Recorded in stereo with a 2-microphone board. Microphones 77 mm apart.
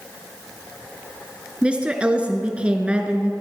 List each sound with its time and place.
1.6 s a woman speaking: 15° right (ahead or behind), 1.2 m